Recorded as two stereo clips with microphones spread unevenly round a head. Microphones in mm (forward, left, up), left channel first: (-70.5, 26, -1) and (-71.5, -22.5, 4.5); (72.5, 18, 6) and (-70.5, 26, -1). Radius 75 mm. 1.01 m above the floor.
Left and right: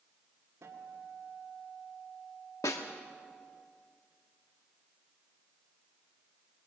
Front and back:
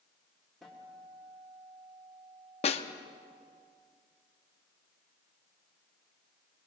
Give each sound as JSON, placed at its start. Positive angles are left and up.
{"t": 0.6, "sound": "a guitar", "azimuth_deg": -90, "distance_m": 2.5}
{"t": 2.6, "sound": "a snare drum", "azimuth_deg": 40, "distance_m": 1.1}